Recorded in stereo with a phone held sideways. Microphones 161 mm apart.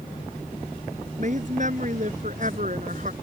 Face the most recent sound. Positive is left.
turn(degrees=-50)  # may be behind; listen again after turning